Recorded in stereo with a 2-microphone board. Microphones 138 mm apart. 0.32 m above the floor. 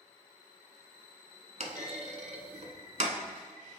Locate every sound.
1.6 s a clunk: 55° right (ahead or behind), 0.7 m